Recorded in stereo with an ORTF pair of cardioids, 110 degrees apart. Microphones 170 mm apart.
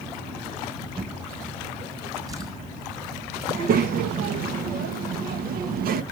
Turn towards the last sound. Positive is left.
turn(degrees=-65)